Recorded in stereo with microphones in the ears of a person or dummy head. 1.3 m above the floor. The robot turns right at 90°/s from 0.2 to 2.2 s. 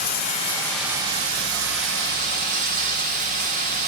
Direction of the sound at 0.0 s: 130° left.